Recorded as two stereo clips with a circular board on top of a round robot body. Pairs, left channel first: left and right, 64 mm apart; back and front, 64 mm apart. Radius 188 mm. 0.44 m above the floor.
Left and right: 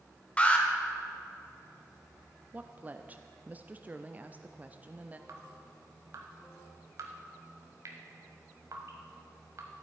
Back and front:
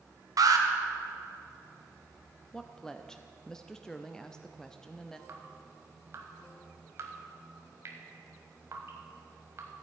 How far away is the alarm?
About 1.3 m.